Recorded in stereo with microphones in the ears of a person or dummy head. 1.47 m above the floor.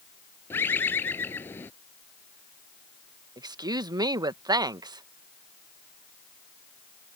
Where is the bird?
10° left (ahead or behind).